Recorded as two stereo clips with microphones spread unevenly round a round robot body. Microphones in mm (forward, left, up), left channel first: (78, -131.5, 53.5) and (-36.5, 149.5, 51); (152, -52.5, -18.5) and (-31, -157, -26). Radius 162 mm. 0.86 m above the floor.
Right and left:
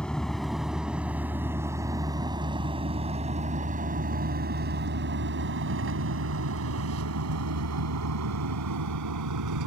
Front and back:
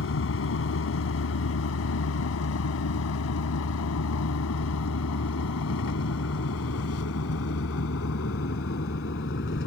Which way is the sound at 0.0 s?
20° left.